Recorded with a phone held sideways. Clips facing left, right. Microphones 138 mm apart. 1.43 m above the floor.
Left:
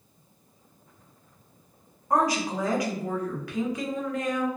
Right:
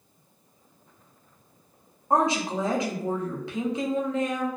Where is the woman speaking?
25° right (ahead or behind), 0.6 m.